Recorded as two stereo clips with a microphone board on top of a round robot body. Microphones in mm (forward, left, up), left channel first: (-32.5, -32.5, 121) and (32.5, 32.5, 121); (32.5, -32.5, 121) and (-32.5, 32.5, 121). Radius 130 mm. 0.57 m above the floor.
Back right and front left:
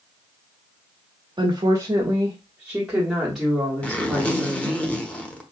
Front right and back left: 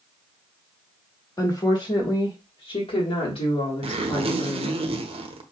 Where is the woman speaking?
5° left, 1.3 m; by 4.8 s 60° right, 2.5 m.